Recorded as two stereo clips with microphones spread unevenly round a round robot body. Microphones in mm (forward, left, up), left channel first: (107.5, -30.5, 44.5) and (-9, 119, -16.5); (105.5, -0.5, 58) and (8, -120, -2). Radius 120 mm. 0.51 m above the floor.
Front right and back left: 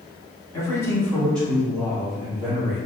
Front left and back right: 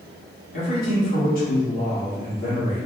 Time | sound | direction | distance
0.5 | a man speaking | 35° left | 1.6 m